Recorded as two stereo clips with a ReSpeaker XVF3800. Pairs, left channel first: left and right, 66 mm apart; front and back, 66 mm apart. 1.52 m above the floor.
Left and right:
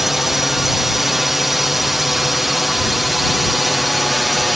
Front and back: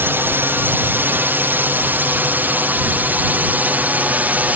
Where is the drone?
170° right; by 4.6 s 175° right.